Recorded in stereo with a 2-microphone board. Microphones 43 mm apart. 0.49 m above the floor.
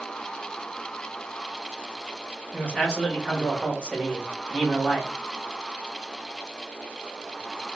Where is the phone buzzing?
No phone buzzing in this recording.